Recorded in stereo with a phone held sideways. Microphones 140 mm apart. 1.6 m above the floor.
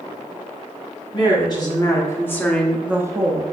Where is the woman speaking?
35° left (ahead or behind), 1.5 m; by 3.4 s 45° right (ahead or behind), 0.5 m.